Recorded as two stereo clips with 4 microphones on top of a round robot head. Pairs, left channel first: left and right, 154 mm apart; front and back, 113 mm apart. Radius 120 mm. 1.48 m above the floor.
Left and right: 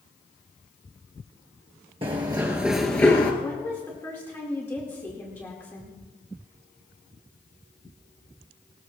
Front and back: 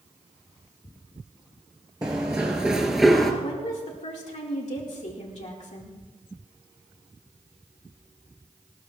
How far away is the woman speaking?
About 2 m.